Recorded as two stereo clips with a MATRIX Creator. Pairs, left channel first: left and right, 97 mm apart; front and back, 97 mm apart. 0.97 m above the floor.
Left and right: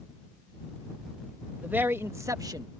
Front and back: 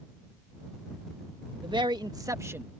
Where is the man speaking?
160° right; by 2.7 s 115° right.